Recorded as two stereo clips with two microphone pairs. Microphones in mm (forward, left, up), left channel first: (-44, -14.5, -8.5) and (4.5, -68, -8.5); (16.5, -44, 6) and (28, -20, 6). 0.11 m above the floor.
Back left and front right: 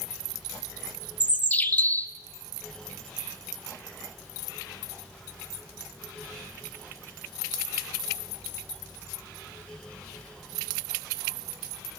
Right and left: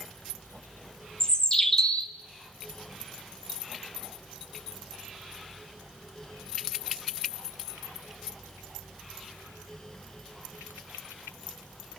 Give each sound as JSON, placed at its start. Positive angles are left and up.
{"t": 1.2, "sound": "a bird", "azimuth_deg": -165, "distance_m": 1.0}